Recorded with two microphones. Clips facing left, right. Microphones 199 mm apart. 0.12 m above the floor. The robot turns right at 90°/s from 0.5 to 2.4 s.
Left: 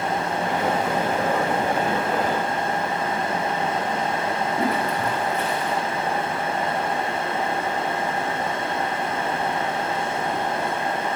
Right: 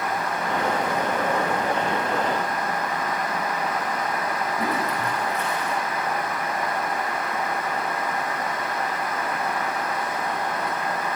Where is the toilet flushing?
70° left (ahead or behind), 5 m.